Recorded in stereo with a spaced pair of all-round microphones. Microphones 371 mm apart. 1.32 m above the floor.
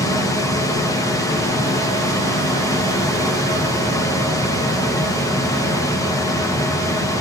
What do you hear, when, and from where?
0.0 s a machine running: 10° left (ahead or behind), 1.4 m